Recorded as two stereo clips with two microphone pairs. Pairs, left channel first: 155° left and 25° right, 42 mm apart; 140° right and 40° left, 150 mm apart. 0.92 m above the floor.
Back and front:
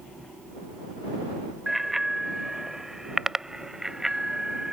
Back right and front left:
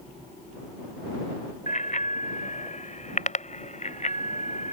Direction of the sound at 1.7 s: 110° right.